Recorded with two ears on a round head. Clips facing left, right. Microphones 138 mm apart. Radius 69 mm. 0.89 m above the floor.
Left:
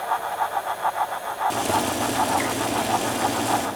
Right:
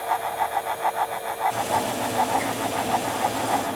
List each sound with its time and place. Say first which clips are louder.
1.5 s boiling: left 1 dB; 75° left (ahead or behind), 2.5 m